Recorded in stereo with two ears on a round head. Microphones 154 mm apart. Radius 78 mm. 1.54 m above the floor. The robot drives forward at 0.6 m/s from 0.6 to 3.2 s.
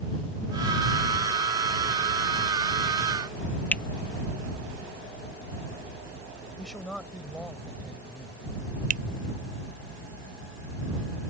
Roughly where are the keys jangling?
No keys jangling in this recording.